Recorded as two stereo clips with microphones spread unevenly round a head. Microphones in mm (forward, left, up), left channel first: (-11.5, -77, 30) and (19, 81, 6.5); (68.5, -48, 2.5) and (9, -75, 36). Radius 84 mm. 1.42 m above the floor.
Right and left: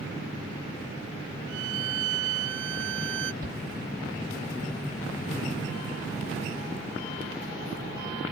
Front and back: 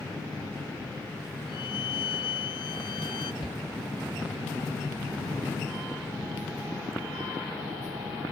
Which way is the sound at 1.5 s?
65° left.